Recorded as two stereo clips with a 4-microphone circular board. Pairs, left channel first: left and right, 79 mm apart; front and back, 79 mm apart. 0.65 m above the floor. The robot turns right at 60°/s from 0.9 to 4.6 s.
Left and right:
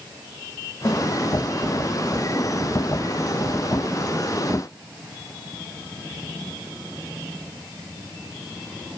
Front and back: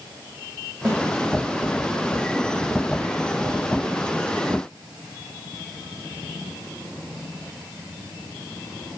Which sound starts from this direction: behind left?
A snare drum, at 0.8 s.